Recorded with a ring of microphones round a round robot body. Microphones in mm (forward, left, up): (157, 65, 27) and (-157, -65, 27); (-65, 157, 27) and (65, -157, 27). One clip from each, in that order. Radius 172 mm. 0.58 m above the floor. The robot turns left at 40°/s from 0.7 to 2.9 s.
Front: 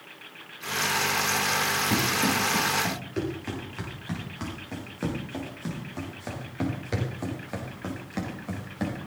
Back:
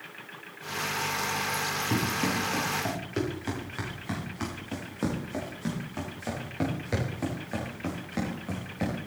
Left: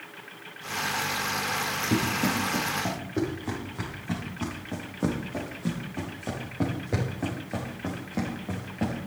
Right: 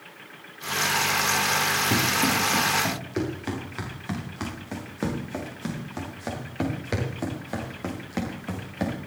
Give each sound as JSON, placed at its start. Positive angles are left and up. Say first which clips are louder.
{"t": 1.9, "sound": "running footsteps", "louder": "front 4 dB, right 4 dB", "azimuth_deg": -40, "distance_m": 7.5}